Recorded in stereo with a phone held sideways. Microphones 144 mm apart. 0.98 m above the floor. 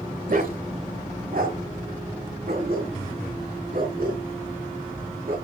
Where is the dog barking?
70° right (ahead or behind), 1.7 m; by 5.3 s 85° right, 6 m.